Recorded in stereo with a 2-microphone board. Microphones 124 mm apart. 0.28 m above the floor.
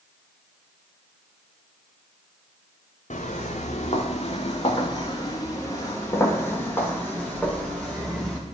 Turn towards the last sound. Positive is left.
turn(degrees=5)  # may be behind; listen again after turning